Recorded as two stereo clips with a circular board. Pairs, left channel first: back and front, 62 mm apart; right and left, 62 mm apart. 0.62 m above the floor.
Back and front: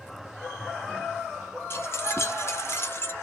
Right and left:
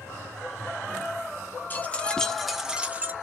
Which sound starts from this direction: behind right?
Keys jangling, at 1.7 s.